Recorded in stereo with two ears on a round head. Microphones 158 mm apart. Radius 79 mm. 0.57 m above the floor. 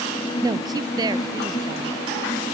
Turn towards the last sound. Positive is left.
turn(degrees=-20)  # may be behind; listen again after turning